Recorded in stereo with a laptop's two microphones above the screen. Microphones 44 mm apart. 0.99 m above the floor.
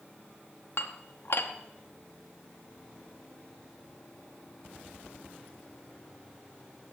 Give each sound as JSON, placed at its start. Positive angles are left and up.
{"t": 0.8, "sound": "dishes clattering", "side_deg": 60, "distance_m": 0.9}